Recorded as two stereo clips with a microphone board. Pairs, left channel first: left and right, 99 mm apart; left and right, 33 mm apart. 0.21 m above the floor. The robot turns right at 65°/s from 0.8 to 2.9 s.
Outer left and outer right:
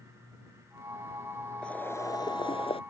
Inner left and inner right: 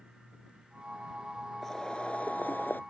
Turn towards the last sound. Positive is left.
turn(degrees=90)